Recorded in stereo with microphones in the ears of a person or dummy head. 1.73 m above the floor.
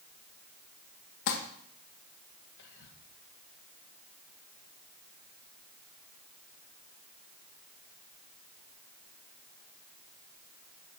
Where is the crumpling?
70° left (ahead or behind), 1.5 m.